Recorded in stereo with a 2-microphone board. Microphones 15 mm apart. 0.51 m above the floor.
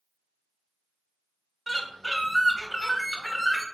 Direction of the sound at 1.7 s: Centre (ahead or behind).